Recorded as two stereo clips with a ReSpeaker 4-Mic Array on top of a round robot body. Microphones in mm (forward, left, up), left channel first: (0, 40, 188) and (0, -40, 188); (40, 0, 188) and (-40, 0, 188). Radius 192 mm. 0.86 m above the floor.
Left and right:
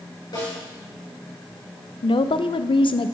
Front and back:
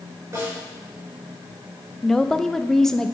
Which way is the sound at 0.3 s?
125° left.